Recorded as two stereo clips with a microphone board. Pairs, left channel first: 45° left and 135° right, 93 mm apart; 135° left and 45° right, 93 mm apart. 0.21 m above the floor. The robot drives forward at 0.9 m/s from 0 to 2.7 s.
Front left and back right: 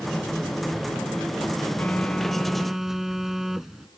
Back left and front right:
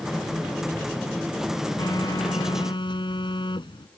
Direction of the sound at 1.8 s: 110° left.